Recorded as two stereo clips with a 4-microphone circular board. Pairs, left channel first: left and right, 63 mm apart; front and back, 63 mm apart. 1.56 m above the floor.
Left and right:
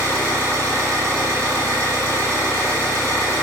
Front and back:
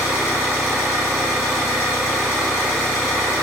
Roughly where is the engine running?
Right.